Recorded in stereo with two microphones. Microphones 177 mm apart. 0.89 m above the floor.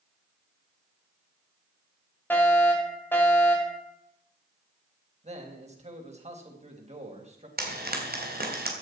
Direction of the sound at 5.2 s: 40° right (ahead or behind).